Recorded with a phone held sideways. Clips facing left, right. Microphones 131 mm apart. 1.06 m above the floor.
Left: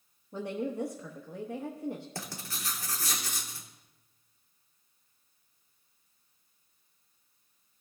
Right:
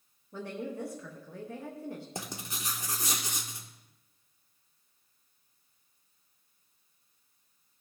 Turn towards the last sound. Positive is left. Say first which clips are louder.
# right 1 dB
turn(degrees=-20)  # may be behind; listen again after turning